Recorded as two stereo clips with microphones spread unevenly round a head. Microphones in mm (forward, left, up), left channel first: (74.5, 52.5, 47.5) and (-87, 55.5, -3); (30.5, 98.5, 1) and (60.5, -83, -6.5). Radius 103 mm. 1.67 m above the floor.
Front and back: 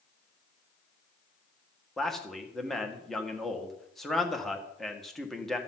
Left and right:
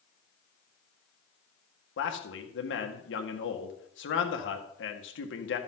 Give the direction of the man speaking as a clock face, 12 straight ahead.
9 o'clock.